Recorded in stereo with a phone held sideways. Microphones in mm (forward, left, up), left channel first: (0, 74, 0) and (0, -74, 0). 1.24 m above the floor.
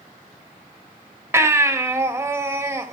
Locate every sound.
1.3 s a baby crying: 15° right (ahead or behind), 2 m